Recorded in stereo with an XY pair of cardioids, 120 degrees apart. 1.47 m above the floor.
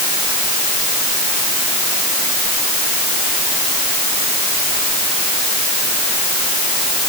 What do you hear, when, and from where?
Only background noise.